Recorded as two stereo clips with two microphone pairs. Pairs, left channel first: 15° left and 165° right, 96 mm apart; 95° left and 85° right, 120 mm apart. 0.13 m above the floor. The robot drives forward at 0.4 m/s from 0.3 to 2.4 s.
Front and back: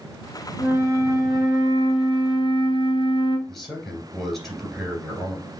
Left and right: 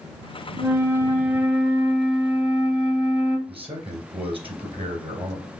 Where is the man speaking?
75° right, 2.0 m.